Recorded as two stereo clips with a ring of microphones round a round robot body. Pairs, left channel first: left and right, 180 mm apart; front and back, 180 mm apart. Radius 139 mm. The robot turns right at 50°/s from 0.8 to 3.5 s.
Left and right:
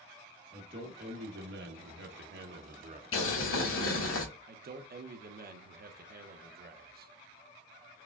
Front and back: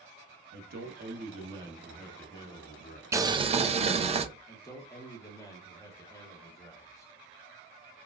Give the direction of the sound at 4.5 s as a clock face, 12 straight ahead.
2 o'clock.